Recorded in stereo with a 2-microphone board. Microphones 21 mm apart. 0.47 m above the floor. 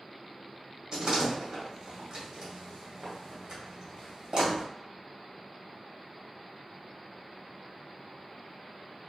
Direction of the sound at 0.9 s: 45° right (ahead or behind).